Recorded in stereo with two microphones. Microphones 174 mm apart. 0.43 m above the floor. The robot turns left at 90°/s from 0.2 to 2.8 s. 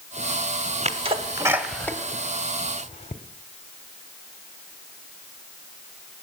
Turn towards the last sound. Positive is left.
turn(degrees=40)  # may be behind; listen again after turning